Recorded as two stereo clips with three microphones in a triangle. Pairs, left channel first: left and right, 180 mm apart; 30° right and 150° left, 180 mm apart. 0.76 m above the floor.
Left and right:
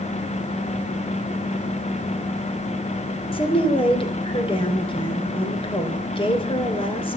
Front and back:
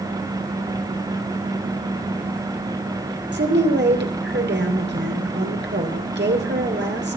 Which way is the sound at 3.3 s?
150° left.